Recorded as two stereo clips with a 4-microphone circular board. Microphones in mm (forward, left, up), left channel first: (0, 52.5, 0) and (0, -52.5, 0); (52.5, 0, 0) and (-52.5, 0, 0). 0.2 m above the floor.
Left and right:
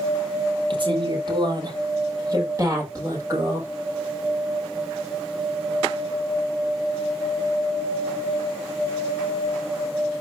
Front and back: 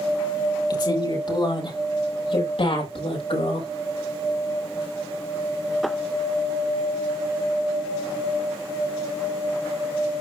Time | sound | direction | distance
0.7 | a woman speaking | 50° right | 5.5 m